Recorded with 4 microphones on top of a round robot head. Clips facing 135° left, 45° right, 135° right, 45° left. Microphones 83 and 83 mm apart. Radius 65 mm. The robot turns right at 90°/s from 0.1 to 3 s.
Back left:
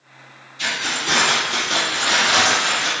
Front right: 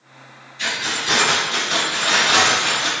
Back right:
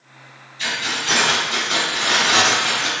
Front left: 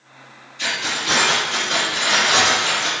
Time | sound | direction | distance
0.6 | keys jangling | 65° left | 1.8 m